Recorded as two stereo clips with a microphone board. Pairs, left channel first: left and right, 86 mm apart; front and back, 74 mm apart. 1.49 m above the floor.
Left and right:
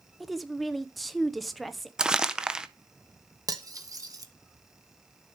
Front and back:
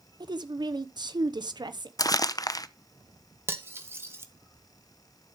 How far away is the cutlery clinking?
About 1.1 m.